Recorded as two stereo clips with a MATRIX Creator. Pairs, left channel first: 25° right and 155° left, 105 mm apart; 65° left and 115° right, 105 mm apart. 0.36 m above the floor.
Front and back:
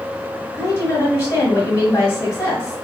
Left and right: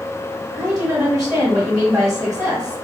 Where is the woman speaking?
60° right, 1.3 m.